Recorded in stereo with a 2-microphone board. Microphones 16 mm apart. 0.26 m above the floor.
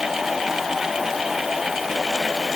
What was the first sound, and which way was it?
Only background noise.